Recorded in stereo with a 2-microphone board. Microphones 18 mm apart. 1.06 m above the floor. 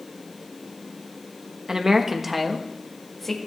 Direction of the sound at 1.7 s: 35° right (ahead or behind).